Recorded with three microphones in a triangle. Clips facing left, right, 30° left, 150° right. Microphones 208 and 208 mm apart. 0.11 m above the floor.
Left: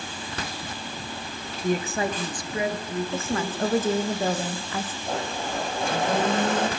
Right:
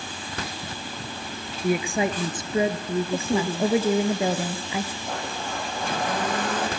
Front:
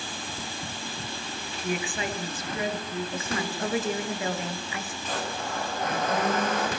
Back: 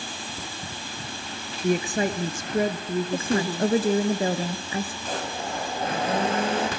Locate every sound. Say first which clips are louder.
1.6 s a woman speaking: right 2 dB, back 7 dB; 170° right, 1.4 m; by 3.7 s 130° right, 2 m
3.1 s a woman speaking: right 3 dB, back 7 dB; 165° right, 1.3 m
5.1 s a blender: left 2 dB, back 1 dB; 155° left, 3.5 m